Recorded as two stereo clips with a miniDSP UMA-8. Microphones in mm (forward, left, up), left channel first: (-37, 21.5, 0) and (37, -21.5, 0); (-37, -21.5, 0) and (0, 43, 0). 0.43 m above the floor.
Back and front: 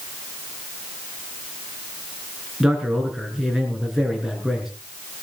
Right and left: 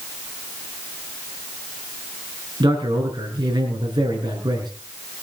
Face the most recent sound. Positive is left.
turn(degrees=55)